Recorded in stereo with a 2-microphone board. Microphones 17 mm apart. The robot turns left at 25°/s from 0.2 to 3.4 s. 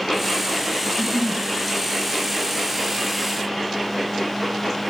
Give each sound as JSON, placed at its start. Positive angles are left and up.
{"t": 0.9, "sound": "a giggle", "side_deg": -70, "distance_m": 3.0}